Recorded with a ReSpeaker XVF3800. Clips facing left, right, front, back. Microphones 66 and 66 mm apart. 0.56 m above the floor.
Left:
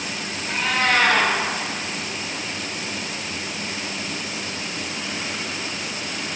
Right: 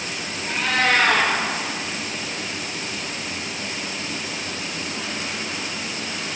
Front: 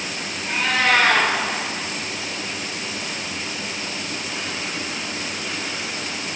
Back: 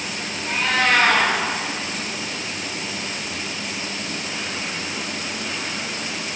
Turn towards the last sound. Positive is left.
turn(degrees=-75)